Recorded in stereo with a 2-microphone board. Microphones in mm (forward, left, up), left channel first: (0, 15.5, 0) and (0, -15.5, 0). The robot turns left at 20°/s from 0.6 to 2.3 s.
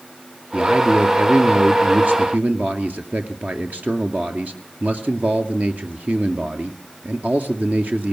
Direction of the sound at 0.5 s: 55° right.